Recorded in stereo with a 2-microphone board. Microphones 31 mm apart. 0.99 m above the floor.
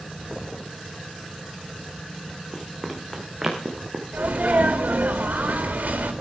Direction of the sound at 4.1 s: 85° right.